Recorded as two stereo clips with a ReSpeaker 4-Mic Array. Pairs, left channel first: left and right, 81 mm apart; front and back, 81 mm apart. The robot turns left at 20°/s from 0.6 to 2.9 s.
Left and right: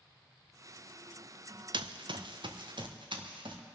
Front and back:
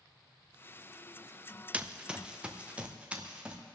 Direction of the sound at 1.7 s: 105° right.